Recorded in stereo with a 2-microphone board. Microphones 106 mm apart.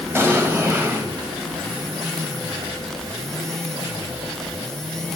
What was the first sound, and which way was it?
An explosion, 25° right (ahead or behind).